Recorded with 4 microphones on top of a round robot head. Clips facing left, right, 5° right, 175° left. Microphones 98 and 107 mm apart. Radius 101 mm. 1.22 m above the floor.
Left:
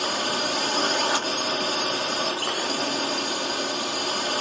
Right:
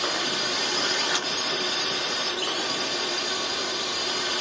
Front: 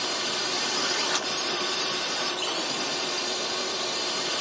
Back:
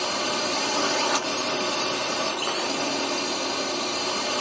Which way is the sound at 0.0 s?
135° left.